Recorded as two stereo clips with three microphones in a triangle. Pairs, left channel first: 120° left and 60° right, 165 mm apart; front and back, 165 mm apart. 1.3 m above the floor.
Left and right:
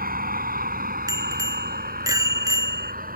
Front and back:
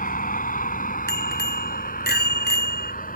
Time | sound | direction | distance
0.0 | a vehicle | 35° right | ?
1.1 | a bicycle bell | 10° left | ?